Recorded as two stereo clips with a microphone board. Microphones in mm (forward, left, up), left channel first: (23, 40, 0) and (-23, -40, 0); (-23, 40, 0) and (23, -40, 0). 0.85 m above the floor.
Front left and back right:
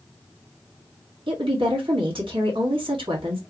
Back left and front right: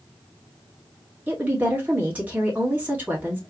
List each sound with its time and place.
1.3 s a woman speaking: 130° right, 1.5 m